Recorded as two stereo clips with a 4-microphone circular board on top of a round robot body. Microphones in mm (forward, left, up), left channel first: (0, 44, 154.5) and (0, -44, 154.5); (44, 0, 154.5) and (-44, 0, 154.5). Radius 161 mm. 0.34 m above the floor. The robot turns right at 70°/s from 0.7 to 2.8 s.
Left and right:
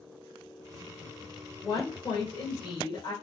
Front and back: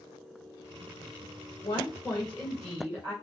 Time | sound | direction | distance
1.6 | a woman speaking | 30° left | 2 m